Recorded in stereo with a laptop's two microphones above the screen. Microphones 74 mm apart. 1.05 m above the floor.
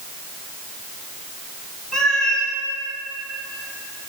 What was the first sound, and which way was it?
A cat meowing, 10° left (ahead or behind).